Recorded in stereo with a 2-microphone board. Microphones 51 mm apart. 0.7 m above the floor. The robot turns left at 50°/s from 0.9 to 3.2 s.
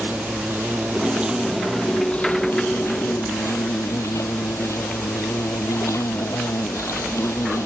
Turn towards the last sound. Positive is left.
turn(degrees=100)